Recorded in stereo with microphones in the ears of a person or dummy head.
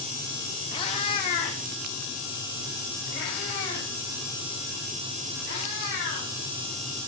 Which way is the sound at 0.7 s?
25° left (ahead or behind).